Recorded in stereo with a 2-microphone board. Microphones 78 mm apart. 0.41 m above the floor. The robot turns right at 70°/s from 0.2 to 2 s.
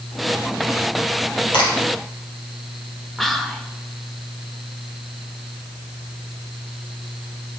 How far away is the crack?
About 4.5 m.